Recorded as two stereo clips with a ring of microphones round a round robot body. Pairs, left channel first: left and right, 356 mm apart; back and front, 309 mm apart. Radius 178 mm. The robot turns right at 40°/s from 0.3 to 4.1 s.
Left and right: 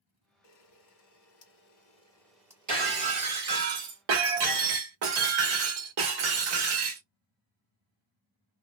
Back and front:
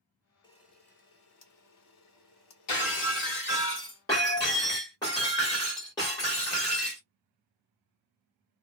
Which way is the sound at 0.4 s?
105° left.